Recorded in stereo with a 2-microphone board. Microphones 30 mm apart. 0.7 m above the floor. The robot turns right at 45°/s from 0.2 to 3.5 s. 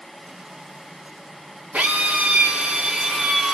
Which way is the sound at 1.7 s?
85° right.